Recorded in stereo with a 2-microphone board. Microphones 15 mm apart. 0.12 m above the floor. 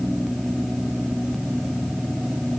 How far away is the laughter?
No laughter in this recording.